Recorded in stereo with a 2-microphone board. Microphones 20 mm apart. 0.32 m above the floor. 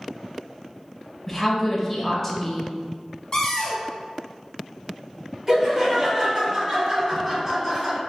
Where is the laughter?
25° right (ahead or behind), 1.8 m.